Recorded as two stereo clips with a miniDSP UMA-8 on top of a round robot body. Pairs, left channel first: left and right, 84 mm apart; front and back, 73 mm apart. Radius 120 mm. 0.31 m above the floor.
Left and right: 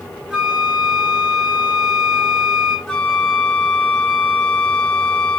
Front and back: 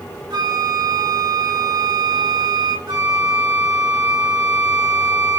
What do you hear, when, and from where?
0.3 s a flute: 170° right, 2 m
2.9 s a flute: 175° left, 2.5 m